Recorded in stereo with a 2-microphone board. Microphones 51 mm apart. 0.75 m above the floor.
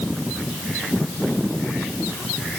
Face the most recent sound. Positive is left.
No sound to turn to.